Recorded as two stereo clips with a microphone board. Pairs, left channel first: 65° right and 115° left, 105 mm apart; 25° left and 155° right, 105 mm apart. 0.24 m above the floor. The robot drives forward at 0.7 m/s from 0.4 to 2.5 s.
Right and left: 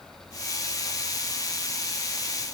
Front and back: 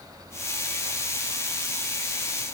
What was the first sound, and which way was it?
Only background noise.